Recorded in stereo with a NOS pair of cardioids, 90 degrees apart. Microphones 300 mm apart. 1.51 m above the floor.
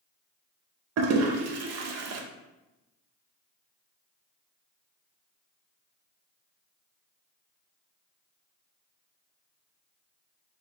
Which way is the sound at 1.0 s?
60° right.